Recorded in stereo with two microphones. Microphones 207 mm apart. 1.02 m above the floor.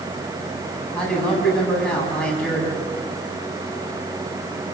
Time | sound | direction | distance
0.9 | a man speaking | 5° left (ahead or behind) | 9.5 m